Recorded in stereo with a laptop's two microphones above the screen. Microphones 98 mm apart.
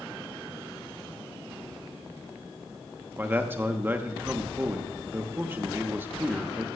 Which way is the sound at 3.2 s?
20° right (ahead or behind).